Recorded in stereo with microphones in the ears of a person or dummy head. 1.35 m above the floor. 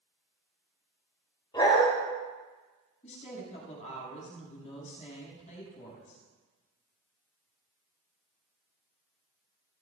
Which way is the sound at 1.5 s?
20° left (ahead or behind).